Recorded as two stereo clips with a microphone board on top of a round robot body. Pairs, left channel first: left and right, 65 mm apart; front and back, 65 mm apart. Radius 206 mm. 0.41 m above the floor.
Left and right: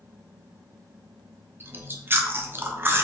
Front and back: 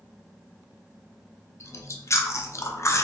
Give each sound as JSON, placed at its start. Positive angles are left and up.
{"t": 1.6, "sound": "chewing", "azimuth_deg": -35, "distance_m": 0.7}